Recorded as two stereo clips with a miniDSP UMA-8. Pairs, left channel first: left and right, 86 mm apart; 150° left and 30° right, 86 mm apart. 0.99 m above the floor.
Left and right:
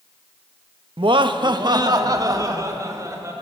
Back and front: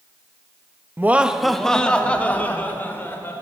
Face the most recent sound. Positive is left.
turn(degrees=-145)